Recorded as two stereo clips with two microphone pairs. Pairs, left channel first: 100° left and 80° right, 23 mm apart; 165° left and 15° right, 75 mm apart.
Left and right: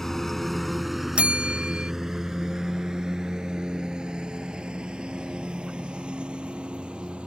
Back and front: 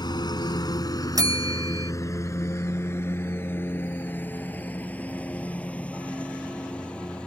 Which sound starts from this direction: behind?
A lawn mower, at 0.0 s.